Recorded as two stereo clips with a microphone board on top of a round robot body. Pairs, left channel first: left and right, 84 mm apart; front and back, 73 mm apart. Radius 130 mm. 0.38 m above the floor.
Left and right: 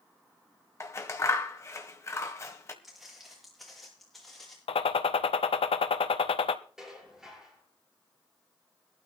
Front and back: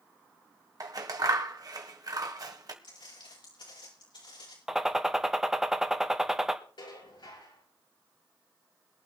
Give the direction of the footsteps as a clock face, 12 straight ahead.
12 o'clock.